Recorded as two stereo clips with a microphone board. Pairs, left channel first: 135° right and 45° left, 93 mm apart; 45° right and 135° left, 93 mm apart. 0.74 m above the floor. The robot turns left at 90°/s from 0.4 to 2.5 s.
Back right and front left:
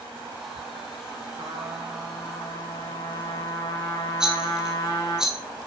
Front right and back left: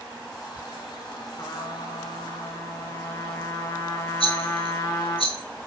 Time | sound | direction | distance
1.4 | a trumpet | 10° left | 3 m
4.2 | a rattle | 40° right | 1.7 m